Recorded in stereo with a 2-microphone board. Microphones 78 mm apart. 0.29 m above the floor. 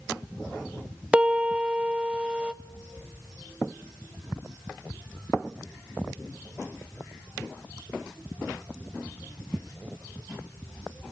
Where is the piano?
15° right (ahead or behind), 0.7 m.